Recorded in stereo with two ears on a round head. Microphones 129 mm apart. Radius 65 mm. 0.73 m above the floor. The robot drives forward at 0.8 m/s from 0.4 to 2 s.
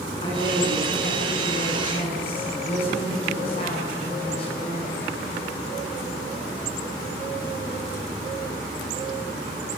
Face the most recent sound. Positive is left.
turn(degrees=40)  # may be behind; listen again after turning